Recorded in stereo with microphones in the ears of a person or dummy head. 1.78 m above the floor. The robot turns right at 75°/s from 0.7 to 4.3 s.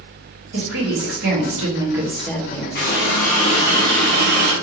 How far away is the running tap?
About 1.4 m.